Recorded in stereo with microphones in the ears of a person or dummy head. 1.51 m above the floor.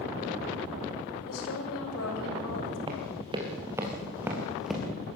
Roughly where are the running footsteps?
Right.